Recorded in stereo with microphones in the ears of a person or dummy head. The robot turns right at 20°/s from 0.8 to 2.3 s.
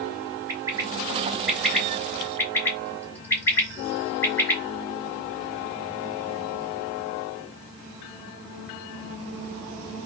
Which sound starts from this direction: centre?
A bird, at 0.5 s.